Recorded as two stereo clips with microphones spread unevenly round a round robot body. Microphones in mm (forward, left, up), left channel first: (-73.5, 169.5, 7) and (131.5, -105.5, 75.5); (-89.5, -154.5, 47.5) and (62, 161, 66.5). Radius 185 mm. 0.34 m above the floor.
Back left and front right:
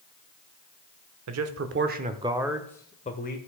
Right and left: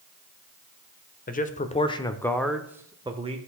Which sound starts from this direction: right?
A man speaking, at 1.3 s.